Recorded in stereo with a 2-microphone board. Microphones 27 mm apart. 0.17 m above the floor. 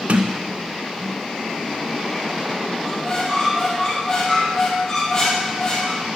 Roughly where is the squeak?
Left.